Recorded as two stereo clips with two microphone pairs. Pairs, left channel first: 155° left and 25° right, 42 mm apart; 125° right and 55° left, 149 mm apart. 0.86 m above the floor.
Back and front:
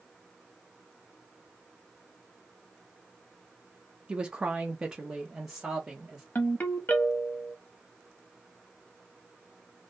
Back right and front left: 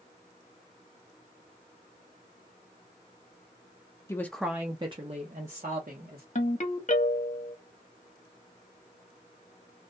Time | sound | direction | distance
4.1 | a woman speaking | 70° right | 0.5 m
6.3 | a ringtone | 165° right | 0.8 m